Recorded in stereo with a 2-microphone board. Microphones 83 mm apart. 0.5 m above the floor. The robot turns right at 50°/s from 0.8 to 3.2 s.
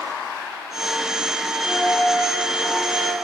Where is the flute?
110° left, 1.2 m; by 3.1 s 175° right, 1.2 m.